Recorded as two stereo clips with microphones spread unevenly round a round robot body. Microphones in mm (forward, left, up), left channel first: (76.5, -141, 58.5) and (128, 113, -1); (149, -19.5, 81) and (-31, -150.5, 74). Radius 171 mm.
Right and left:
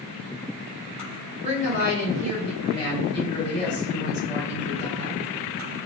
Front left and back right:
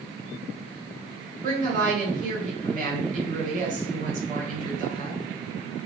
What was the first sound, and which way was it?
A woman speaking, 175° left.